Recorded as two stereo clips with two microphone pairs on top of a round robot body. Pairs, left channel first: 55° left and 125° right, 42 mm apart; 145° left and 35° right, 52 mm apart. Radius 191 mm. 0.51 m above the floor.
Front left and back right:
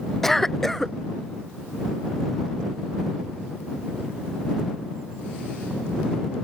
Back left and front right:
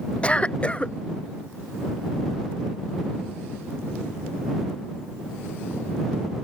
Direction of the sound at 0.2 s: 95° left.